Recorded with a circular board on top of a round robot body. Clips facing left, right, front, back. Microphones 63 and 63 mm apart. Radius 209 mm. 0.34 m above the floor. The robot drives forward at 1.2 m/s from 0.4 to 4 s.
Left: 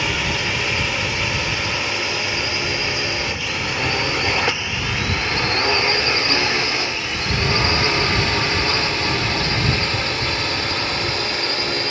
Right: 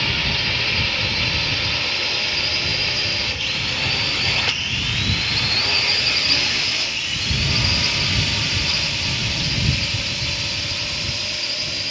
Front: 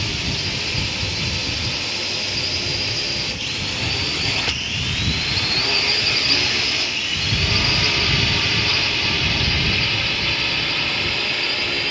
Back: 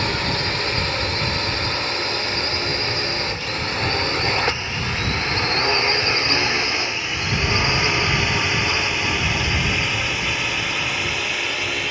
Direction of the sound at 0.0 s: 160° left.